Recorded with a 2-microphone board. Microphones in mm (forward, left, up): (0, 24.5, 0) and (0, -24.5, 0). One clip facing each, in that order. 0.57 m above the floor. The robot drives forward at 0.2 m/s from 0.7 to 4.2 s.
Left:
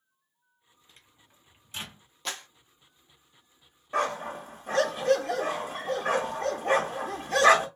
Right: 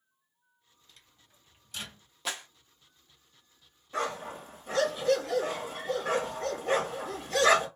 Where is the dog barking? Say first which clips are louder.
Left 4 dB; 45° left (ahead or behind), 1.1 m.